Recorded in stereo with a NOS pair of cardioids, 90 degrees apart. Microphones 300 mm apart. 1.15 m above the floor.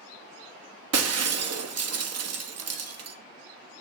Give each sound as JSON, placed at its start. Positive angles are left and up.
{"t": 0.9, "sound": "breaking glass", "azimuth_deg": -55, "distance_m": 1.3}